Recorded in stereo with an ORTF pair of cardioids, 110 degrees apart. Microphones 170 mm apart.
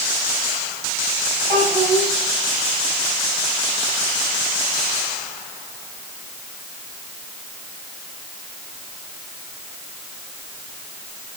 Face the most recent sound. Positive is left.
turn(degrees=-20)